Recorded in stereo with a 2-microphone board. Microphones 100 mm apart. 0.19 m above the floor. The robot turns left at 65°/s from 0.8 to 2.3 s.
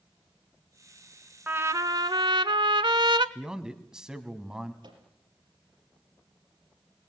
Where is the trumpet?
20° right, 0.8 m; by 3.2 s 75° right, 0.8 m.